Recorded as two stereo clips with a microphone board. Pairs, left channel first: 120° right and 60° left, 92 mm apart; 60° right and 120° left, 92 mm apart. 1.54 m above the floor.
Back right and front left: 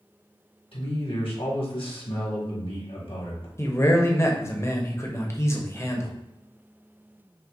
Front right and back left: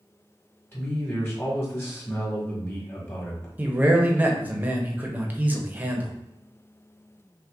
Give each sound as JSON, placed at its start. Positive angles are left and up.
{"t": 0.7, "sound": "a man speaking", "azimuth_deg": -125, "distance_m": 1.6}
{"t": 3.6, "sound": "a man speaking", "azimuth_deg": -175, "distance_m": 0.7}